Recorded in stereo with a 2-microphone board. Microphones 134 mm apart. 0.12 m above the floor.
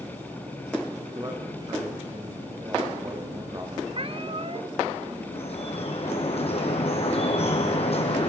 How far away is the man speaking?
About 8.5 m.